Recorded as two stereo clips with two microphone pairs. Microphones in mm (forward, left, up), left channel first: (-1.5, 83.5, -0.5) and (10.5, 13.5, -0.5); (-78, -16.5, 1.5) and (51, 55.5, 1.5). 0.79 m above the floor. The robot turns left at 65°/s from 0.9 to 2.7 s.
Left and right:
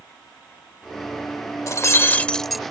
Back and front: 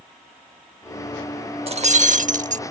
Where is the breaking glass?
70° left; by 2.6 s 10° left.